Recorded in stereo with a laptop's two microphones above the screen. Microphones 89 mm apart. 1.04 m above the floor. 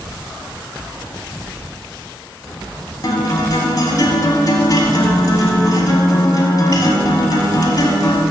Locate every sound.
3.0 s a guitar: 45° left (ahead or behind), 1.4 m